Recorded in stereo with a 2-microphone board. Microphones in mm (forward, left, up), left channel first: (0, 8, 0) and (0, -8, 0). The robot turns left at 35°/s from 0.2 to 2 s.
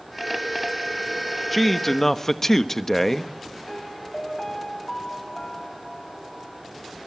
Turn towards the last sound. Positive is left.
turn(degrees=20)  # may be behind; listen again after turning